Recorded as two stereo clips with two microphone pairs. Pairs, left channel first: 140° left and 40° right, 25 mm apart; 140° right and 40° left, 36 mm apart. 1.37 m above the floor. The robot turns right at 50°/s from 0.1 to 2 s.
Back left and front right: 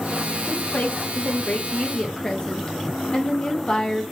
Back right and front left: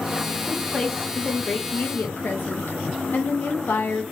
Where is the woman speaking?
115° left, 0.8 m; by 4.0 s 165° right, 0.8 m.